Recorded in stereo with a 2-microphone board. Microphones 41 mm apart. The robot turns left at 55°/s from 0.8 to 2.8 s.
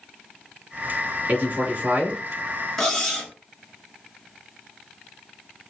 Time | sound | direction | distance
1.3 | a man speaking | 80° right | 1.9 m
2.8 | cutlery clinking | 10° left (ahead or behind) | 1.6 m